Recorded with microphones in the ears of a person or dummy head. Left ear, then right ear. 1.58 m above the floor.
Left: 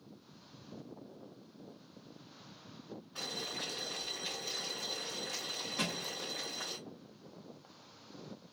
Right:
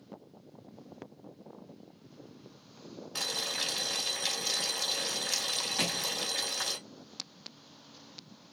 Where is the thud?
10° right (ahead or behind), 2.5 m.